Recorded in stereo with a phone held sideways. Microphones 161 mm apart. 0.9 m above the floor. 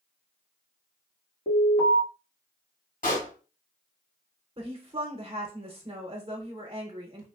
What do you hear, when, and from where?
1.5 s an alarm: 60° left (ahead or behind), 1.8 m
3.0 s a pop: 60° left (ahead or behind), 2 m
4.6 s a woman speaking: 40° right (ahead or behind), 0.7 m